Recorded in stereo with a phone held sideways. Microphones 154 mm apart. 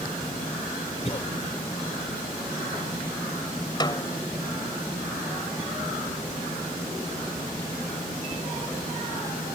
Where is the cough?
45° left (ahead or behind).